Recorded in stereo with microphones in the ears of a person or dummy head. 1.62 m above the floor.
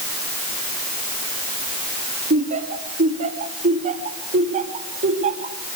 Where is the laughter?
35° right (ahead or behind), 3 m.